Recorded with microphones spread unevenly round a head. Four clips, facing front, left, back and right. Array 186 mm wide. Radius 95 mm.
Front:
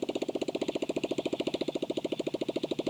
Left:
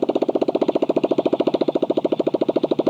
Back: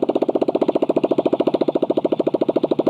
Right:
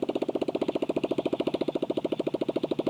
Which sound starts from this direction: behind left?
A motorcycle, at 0.0 s.